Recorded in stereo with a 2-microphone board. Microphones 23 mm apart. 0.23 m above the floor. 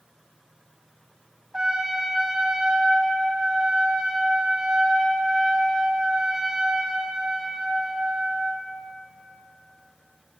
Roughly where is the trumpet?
Right.